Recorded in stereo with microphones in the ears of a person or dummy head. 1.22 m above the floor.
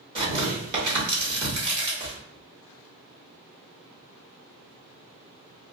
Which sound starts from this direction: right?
Tearing paper, at 0.1 s.